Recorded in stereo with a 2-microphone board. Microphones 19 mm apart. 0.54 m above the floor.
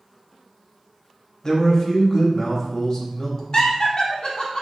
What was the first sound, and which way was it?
A man speaking, 35° left (ahead or behind).